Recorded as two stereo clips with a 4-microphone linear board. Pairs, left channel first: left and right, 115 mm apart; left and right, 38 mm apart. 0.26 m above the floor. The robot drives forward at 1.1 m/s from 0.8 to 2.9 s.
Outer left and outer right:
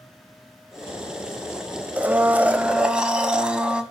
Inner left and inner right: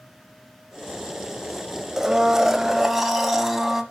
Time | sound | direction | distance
2.0 | a blender | 15° right (ahead or behind) | 0.6 m